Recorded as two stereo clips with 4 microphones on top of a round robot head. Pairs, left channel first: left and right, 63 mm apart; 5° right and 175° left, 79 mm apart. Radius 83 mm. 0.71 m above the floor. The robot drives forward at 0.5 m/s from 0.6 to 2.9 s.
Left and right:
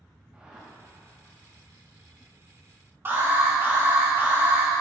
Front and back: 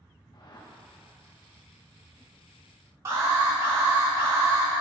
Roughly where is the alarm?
Behind right.